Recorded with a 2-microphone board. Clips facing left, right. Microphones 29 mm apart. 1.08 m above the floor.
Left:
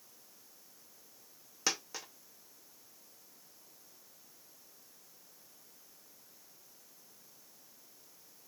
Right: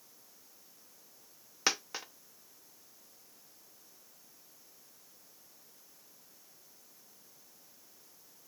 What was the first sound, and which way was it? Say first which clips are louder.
A dropped coin: right 3 dB; 30° right (ahead or behind).